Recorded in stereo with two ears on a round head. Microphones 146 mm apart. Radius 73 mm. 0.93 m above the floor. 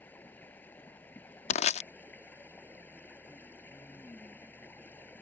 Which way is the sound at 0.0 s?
10° left (ahead or behind).